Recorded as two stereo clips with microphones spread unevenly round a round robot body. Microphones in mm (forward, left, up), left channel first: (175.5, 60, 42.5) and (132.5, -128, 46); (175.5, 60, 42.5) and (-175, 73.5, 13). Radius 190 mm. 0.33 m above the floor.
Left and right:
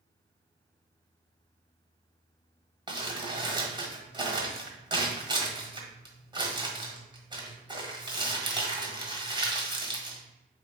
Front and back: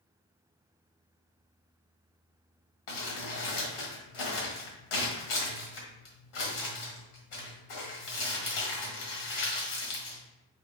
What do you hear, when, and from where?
2.9 s crumpling: 35° right, 1.6 m